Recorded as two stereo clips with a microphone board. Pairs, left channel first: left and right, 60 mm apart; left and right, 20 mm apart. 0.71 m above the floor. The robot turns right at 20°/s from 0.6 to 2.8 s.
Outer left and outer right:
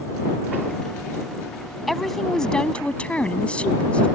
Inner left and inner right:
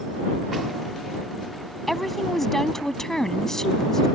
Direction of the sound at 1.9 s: Centre (ahead or behind).